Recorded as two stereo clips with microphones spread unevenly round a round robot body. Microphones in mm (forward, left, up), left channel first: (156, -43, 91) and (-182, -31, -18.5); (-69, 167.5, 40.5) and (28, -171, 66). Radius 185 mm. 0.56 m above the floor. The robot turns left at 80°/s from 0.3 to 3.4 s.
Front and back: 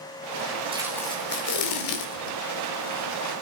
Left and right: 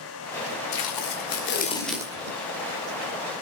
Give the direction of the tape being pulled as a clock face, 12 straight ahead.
8 o'clock.